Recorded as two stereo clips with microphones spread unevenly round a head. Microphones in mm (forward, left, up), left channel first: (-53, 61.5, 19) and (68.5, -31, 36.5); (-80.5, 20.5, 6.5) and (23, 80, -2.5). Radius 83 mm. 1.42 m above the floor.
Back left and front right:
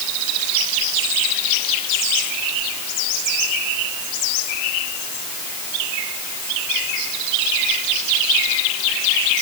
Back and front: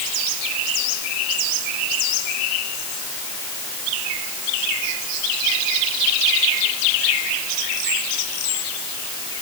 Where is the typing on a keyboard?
I don't hear typing on a keyboard.